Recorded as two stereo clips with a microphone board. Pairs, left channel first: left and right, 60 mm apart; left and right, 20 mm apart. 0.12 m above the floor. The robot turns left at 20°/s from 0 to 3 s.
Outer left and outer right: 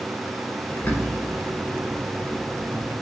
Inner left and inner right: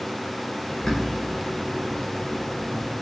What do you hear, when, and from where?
0.7 s a bird: 40° left (ahead or behind), 1.0 m; by 2.9 s 15° left (ahead or behind), 1.0 m